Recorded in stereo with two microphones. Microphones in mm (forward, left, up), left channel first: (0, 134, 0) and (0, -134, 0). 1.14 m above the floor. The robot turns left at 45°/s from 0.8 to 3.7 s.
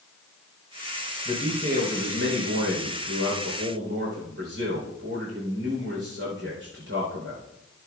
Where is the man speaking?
15° right, 3.5 m; by 7.5 s 125° right, 3.5 m.